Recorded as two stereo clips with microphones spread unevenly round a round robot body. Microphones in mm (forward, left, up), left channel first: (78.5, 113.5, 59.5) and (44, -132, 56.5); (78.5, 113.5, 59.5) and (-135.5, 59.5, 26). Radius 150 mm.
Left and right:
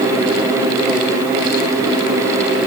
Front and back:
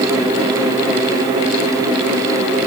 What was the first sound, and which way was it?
Only background noise.